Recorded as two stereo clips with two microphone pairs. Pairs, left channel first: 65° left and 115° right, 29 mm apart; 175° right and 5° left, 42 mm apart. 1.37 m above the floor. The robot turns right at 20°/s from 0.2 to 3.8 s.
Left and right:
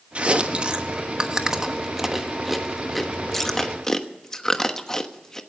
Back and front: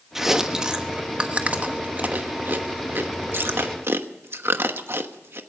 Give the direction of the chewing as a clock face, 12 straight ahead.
3 o'clock.